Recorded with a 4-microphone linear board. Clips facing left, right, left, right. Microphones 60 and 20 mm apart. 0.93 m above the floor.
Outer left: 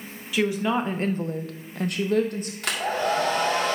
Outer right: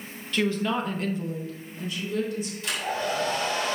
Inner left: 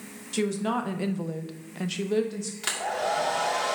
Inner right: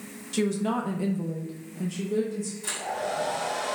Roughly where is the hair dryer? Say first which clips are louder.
Outer left 5 dB, inner left 4 dB; left.